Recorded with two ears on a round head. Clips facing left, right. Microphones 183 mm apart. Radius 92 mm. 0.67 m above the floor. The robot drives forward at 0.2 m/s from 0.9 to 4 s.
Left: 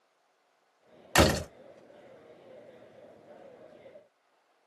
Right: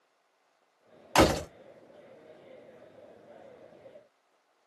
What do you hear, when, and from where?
1.1 s a door slam: 20° left (ahead or behind), 0.9 m